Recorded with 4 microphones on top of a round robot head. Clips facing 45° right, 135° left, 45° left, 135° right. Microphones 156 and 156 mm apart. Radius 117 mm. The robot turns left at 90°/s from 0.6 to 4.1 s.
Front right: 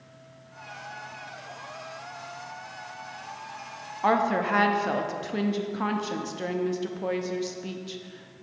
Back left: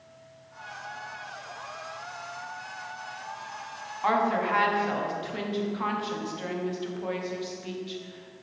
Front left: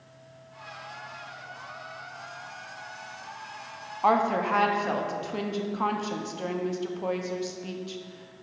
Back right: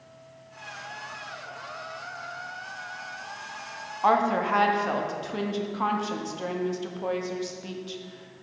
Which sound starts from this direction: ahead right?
A woman speaking, at 4.0 s.